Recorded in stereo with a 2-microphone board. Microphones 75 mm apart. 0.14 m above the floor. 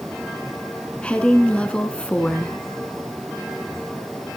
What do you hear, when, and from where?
1.0 s a woman speaking: 15° left (ahead or behind), 1.3 m